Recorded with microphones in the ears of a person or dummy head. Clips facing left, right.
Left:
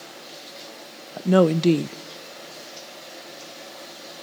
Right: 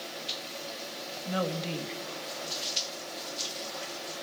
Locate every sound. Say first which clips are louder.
1.2 s a woman speaking: left 15 dB; 70° left (ahead or behind), 0.8 m